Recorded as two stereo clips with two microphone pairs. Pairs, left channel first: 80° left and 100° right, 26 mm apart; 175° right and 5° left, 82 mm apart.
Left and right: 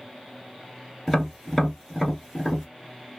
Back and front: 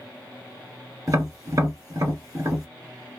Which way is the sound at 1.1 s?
5° left.